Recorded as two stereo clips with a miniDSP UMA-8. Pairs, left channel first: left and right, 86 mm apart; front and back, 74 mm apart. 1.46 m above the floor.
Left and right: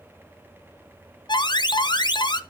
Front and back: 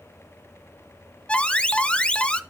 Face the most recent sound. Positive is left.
turn(degrees=75)